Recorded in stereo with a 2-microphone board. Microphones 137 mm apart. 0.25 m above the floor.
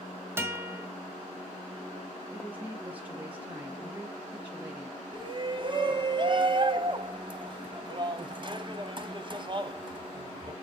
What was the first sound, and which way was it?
A guitar, 15° right (ahead or behind).